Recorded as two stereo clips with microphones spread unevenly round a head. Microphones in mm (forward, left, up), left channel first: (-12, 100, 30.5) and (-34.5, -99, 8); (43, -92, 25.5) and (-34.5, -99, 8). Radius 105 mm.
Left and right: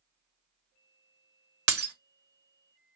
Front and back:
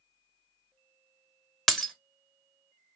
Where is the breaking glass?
65° right, 1.2 m.